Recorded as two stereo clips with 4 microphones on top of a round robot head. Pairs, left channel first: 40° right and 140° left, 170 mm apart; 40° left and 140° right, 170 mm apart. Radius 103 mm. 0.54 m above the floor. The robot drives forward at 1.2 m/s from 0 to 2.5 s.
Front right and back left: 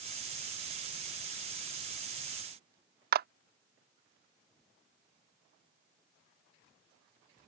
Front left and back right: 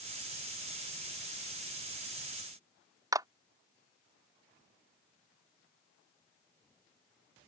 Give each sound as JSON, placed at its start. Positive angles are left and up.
{"t": 3.1, "sound": "a clap", "azimuth_deg": 150}